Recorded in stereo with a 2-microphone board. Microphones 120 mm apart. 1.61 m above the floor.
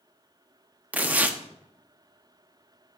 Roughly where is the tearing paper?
Centre.